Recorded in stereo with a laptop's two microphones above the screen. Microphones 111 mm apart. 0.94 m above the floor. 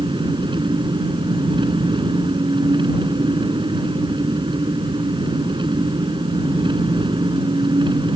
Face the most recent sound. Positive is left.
turn(degrees=-50)  # may be behind; listen again after turning